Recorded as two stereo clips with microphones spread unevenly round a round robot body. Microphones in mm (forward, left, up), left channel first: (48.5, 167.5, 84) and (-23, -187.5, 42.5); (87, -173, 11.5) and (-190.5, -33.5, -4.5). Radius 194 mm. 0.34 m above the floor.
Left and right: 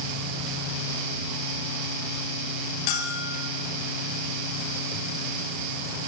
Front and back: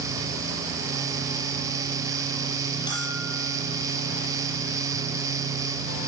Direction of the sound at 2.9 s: 55° left.